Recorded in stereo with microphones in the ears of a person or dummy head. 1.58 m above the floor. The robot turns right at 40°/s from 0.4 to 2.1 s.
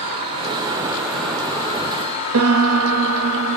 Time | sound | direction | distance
0.0 | an insect | 30° right | 1.2 m
2.3 | a piano | 85° right | 0.6 m